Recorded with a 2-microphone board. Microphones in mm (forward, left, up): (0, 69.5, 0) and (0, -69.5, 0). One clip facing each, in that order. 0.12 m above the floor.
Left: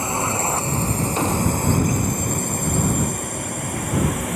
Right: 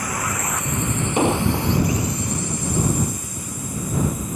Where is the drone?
25° left (ahead or behind); by 4.4 s 75° left (ahead or behind).